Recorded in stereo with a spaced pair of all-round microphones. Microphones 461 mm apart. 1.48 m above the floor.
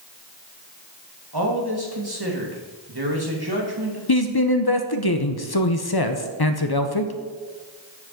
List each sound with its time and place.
1.3 s a man speaking: 55° right (ahead or behind), 2.5 m
4.1 s a man speaking: 55° left (ahead or behind), 0.8 m